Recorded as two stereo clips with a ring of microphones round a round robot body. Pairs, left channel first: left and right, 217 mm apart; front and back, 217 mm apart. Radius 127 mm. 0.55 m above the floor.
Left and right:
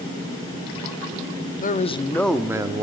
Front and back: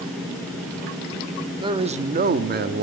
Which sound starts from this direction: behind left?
A man speaking, at 1.6 s.